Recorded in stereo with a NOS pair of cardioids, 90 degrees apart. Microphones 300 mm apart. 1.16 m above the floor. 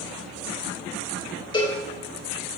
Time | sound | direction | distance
1.5 | a cowbell | 15° left | 1.7 m